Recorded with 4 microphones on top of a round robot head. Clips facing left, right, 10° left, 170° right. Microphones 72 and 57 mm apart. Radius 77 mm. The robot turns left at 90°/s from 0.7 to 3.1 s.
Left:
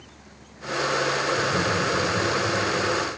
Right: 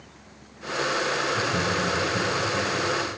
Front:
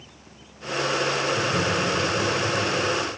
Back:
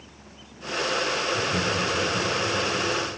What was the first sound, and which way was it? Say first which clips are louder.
Laughter: left 2 dB, front 2 dB; 165° right.